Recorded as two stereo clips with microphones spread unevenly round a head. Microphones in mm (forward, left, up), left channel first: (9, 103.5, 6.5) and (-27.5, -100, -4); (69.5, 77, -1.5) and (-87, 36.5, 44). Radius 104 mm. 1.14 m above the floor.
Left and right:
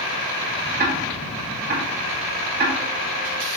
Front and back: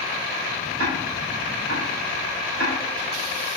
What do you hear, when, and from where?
0.8 s ticking: 145° right, 1.7 m